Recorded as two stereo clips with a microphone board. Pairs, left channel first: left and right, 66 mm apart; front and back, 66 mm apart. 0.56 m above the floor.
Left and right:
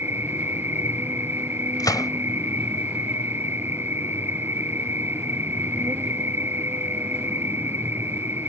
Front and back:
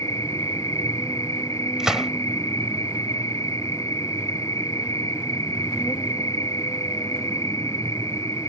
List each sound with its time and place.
0.0 s an insect: 35° right
1.8 s a gunshot: 100° left